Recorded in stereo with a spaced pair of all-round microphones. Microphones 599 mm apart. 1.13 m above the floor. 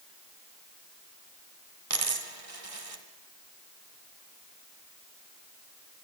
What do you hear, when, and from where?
1.9 s a dropped coin: 65° right (ahead or behind), 2 m